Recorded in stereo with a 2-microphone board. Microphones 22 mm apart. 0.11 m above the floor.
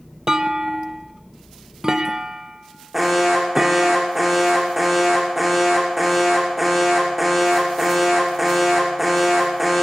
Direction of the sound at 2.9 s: 15° right (ahead or behind).